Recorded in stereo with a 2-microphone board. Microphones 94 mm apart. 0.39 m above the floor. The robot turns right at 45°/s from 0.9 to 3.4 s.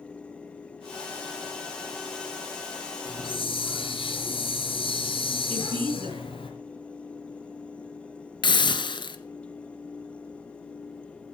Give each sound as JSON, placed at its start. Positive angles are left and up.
{"t": 3.0, "sound": "a hiss", "side_deg": 55, "distance_m": 5.0}
{"t": 5.5, "sound": "a woman speaking", "side_deg": -75, "distance_m": 4.0}
{"t": 8.4, "sound": "a hiss", "side_deg": 60, "distance_m": 1.4}